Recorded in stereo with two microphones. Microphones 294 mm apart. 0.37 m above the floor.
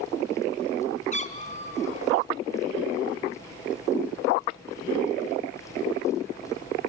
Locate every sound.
1.1 s a cat meowing: 25° left (ahead or behind), 1.5 m